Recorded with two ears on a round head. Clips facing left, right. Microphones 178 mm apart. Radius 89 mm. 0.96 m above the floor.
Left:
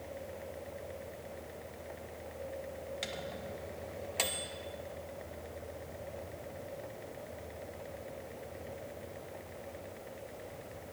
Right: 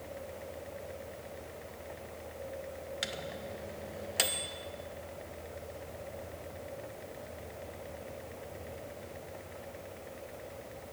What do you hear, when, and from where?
3.0 s a microwave: 10° right (ahead or behind), 0.5 m